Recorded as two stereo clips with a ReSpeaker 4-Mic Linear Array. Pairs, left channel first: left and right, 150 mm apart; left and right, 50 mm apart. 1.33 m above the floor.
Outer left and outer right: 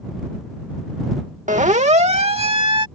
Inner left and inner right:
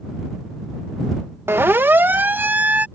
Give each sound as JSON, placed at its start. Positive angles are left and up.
{"t": 1.5, "sound": "a siren", "side_deg": -55}